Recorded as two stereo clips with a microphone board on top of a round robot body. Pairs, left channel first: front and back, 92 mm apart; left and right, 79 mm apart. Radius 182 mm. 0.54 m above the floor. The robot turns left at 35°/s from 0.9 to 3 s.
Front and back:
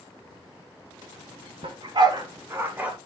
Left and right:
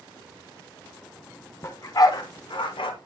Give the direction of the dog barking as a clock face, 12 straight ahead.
7 o'clock.